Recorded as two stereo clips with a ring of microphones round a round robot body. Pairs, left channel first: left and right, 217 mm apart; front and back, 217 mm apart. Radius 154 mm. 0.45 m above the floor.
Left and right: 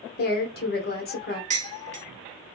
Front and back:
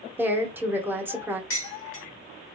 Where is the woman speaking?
100° left, 0.9 m.